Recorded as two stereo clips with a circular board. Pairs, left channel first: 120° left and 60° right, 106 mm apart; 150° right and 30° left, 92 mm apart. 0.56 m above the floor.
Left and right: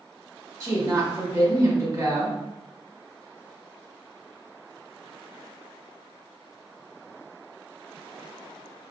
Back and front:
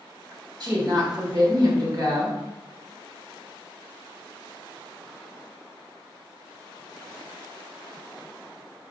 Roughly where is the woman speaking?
Ahead.